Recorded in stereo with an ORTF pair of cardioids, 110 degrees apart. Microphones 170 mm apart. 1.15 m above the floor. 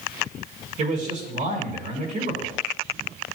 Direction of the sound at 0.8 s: 45° right.